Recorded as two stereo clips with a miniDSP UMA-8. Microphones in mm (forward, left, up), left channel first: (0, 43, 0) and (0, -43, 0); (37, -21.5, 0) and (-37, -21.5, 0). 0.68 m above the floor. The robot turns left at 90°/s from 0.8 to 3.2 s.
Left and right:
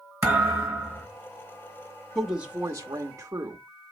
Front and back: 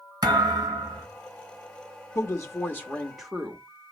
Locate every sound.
0.2 s a thud: 155° right, 3 m; by 1.1 s straight behind, 3 m
2.1 s a woman speaking: 5° left, 0.9 m; by 3.6 s 90° right, 0.9 m